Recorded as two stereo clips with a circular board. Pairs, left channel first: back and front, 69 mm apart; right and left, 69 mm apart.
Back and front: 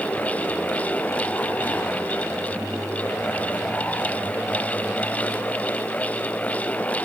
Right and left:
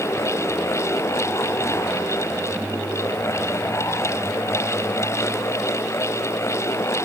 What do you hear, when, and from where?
Only background noise.